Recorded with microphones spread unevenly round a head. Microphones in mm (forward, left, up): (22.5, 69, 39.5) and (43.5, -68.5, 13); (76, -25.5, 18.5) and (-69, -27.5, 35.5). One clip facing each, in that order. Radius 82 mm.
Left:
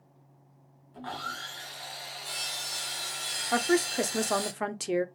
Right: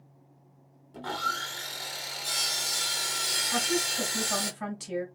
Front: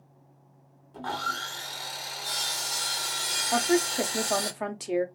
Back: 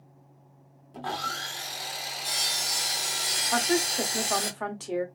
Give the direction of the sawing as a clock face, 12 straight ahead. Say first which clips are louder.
Right 4 dB, even; 4 o'clock.